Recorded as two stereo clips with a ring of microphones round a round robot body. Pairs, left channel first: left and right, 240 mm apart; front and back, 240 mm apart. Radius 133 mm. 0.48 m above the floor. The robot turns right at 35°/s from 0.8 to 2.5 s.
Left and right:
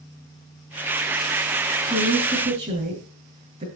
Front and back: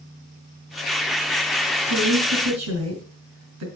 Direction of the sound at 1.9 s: 175° left.